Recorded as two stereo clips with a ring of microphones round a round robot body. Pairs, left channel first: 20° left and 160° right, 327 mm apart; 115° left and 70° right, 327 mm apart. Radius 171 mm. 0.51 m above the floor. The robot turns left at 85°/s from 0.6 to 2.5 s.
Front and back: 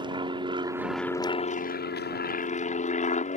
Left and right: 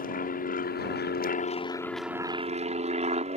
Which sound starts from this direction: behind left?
An aircraft, at 0.0 s.